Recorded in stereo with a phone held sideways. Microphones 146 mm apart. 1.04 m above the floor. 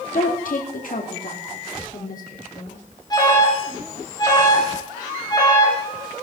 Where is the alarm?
30° left (ahead or behind), 7.5 m.